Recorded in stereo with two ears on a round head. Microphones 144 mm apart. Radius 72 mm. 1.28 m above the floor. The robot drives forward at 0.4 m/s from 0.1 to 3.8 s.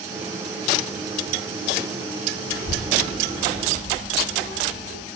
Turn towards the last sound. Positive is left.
turn(degrees=-80)